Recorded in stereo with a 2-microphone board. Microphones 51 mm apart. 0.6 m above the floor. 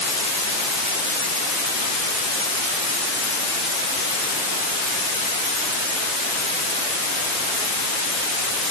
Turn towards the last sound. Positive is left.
No sound to turn to.